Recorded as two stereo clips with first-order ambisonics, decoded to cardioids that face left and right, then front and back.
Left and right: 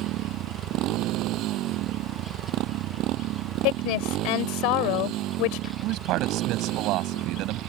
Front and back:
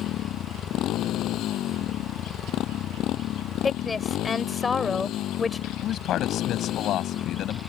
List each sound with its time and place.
0.0 s a motorcycle: 50° right
3.6 s a woman speaking: 75° left
5.8 s a man speaking: 50° right